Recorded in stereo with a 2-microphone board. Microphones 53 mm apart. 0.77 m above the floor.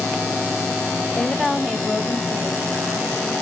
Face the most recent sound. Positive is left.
turn(degrees=-55)  # may be behind; listen again after turning